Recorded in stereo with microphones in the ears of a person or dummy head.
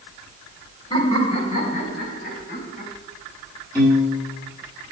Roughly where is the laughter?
Left.